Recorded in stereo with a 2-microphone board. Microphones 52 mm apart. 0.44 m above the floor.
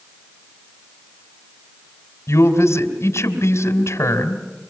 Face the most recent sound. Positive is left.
turn(degrees=65)  # may be behind; listen again after turning